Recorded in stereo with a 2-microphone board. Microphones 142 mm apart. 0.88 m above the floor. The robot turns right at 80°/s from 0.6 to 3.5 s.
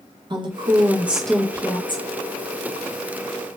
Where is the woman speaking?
50° right, 0.6 m; by 2.0 s 65° left, 0.6 m.